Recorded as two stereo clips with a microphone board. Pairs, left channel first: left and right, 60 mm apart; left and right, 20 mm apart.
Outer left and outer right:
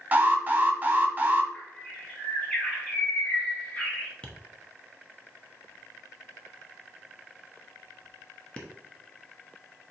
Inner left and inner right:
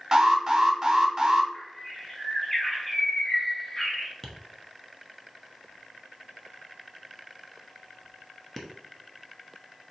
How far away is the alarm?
About 0.7 m.